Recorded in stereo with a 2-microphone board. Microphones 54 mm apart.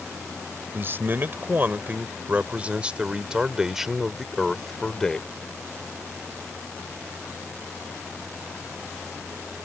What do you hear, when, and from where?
0.7 s a man speaking: 45° right (ahead or behind); by 5.3 s 15° left (ahead or behind)